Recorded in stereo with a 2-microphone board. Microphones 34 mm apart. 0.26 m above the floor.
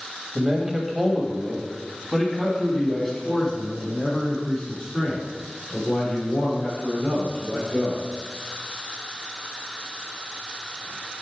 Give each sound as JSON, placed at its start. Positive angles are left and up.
{"t": 0.3, "sound": "a man speaking", "side_deg": -20, "distance_m": 1.5}